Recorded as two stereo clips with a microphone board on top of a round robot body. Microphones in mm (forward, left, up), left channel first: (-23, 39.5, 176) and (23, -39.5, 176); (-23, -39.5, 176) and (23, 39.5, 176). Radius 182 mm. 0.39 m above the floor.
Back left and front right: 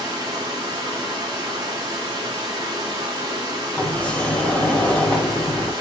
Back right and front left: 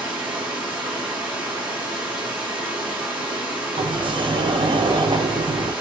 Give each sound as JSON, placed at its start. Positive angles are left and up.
{"t": 0.0, "sound": "running water", "azimuth_deg": -15, "distance_m": 1.8}
{"t": 3.8, "sound": "a sliding door", "azimuth_deg": 40, "distance_m": 0.8}